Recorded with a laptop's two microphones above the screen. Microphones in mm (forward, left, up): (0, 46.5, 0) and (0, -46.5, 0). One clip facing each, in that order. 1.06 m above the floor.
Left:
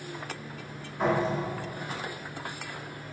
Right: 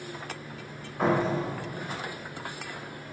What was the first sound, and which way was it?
A door slam, 45° right (ahead or behind).